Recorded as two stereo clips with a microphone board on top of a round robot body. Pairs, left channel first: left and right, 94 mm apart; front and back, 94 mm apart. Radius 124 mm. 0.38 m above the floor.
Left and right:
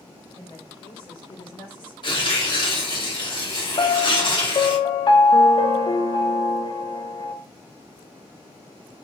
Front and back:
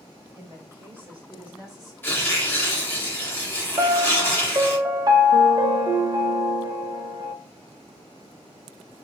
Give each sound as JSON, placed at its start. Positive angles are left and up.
{"t": 0.3, "sound": "a woman speaking", "azimuth_deg": 125, "distance_m": 2.5}
{"t": 2.0, "sound": "tearing paper", "azimuth_deg": 70, "distance_m": 2.5}
{"t": 3.8, "sound": "a piano", "azimuth_deg": 130, "distance_m": 0.7}